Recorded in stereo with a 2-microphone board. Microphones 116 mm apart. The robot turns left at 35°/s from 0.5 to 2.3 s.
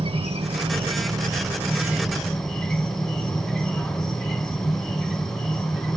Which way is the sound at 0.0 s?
120° right.